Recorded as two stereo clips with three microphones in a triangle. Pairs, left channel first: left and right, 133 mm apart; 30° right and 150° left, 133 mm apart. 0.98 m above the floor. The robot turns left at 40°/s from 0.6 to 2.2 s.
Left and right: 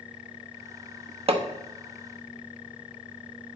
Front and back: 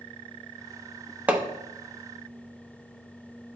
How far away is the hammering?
About 0.6 m.